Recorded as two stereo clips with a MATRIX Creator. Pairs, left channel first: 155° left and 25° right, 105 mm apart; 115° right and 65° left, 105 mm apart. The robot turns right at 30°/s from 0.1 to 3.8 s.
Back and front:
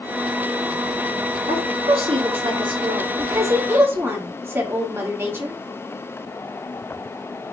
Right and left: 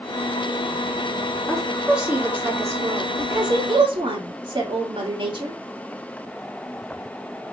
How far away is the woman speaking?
About 1.9 m.